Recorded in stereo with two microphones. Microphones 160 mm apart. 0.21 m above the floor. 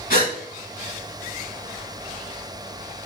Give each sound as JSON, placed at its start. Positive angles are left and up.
{"t": 0.1, "sound": "a gasp", "side_deg": 60, "distance_m": 0.8}